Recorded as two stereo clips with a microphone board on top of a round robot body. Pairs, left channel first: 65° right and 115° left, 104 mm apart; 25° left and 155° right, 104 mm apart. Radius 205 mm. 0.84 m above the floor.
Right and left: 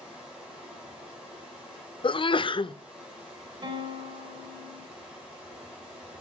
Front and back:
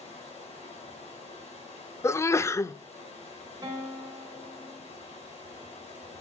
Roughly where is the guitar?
Behind left.